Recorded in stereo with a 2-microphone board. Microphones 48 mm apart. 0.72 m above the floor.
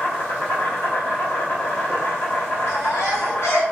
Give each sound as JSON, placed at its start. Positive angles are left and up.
{"t": 0.0, "sound": "an insect", "side_deg": 45, "distance_m": 0.8}
{"t": 2.7, "sound": "a baby crying", "side_deg": 70, "distance_m": 1.9}